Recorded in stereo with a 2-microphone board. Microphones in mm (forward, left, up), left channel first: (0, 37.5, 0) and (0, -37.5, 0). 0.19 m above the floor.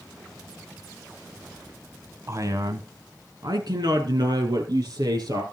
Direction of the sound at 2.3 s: 40° right (ahead or behind).